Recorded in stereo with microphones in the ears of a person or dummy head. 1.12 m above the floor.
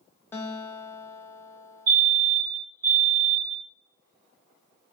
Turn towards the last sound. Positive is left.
turn(degrees=-40)  # may be behind; listen again after turning